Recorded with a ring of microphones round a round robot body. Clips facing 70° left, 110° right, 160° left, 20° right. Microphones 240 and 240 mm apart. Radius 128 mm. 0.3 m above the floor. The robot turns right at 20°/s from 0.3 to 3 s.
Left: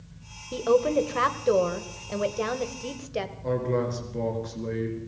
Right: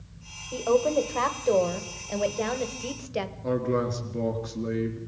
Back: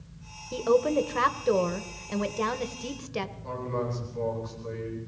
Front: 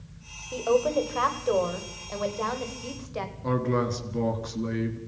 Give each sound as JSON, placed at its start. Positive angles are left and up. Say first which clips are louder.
{"t": 0.5, "sound": "a woman speaking", "louder": "left 1 dB, back 1 dB", "azimuth_deg": 110, "distance_m": 2.0}
{"t": 3.4, "sound": "a man speaking", "louder": "even, front 10 dB", "azimuth_deg": -30, "distance_m": 4.5}